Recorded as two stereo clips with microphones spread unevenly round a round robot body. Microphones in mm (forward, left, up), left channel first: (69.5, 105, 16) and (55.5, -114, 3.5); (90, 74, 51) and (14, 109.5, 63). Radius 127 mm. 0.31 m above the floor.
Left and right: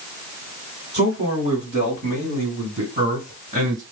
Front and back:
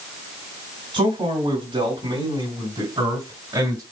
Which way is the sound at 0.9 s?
165° right.